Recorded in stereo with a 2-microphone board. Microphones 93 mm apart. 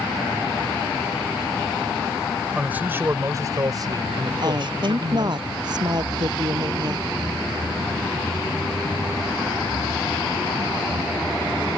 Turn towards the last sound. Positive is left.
turn(degrees=-50)  # may be behind; listen again after turning